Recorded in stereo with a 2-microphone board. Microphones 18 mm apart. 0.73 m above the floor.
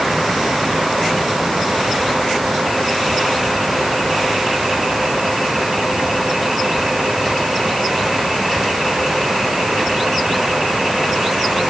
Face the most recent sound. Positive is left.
No sound to turn to.